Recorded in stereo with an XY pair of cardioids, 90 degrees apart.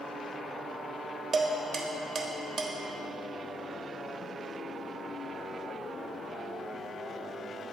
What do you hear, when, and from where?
1.3 s dishes clattering: 60° right, 1.3 m